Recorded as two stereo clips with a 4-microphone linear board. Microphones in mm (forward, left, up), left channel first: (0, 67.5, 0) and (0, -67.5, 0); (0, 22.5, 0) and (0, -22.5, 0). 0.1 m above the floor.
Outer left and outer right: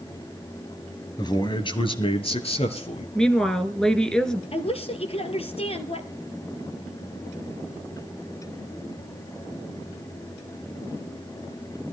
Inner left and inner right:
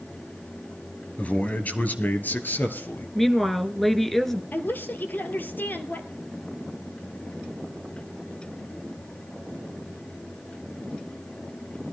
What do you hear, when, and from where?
1.2 s a man speaking: 30° left (ahead or behind), 1.9 m; by 3.0 s 50° left (ahead or behind), 2.5 m
3.1 s a woman speaking: 5° left (ahead or behind), 1.2 m
4.5 s a woman speaking: 45° left (ahead or behind), 2.0 m